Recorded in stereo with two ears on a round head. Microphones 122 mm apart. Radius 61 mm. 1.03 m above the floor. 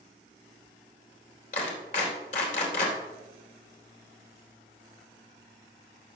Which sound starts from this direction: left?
A clap, at 1.5 s.